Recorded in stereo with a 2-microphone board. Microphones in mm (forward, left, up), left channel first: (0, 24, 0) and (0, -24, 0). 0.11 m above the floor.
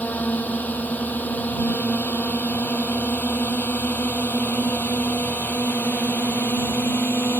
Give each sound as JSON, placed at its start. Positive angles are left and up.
{"t": 0.0, "sound": "a drone", "side_deg": 35}